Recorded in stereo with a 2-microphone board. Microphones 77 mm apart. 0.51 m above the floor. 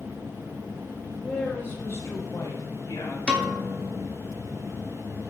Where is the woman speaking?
15° left (ahead or behind), 1.2 m; by 3.2 s 65° left (ahead or behind), 1.6 m.